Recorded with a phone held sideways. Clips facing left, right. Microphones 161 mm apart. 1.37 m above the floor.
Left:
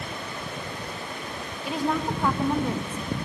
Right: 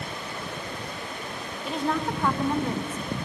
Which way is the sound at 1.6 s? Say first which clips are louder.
Left 1 dB; 5° left (ahead or behind).